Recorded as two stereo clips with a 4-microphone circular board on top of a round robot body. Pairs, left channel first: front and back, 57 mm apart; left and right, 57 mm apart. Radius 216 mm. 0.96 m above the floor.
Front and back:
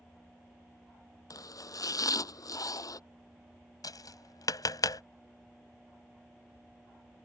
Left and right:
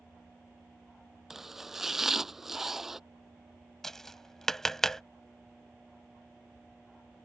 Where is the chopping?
5° right.